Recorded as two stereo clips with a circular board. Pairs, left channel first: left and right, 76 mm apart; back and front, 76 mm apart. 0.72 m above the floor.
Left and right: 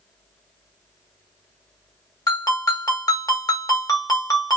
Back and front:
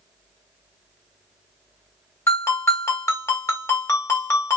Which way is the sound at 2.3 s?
130° left.